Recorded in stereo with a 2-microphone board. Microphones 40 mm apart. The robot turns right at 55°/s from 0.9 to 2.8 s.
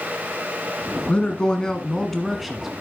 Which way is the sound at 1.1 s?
25° left (ahead or behind).